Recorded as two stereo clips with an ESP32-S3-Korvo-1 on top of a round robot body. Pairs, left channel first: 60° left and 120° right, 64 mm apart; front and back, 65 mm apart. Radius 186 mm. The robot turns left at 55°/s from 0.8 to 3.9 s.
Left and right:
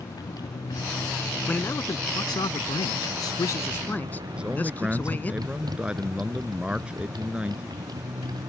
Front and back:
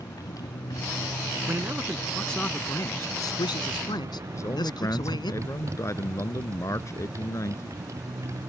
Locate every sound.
0.0 s a motorcycle: 35° left; by 8.5 s 140° right
1.5 s a man speaking: 125° left; by 5.3 s 5° right
4.3 s a man speaking: 45° right